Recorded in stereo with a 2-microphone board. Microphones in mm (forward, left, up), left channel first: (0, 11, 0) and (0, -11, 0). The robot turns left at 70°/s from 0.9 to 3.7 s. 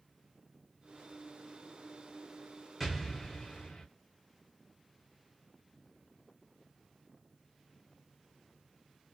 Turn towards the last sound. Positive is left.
turn(degrees=125)